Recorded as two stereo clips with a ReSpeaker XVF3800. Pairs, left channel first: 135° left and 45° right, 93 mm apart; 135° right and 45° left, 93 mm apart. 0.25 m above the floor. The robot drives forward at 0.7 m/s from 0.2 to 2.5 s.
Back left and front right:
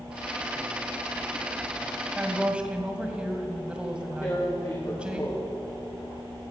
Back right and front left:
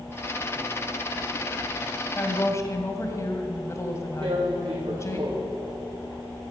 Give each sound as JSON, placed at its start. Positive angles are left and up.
{"t": 2.1, "sound": "a woman speaking", "azimuth_deg": -100, "distance_m": 1.7}
{"t": 4.2, "sound": "tearing paper", "azimuth_deg": 80, "distance_m": 3.0}